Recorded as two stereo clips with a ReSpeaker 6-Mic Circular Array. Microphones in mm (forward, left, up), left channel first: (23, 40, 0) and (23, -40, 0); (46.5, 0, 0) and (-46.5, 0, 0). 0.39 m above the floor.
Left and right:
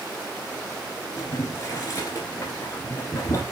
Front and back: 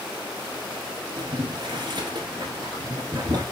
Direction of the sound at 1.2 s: 140° left.